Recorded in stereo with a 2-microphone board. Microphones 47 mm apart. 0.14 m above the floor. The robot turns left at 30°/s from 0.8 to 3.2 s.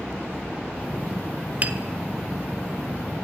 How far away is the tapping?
About 0.9 m.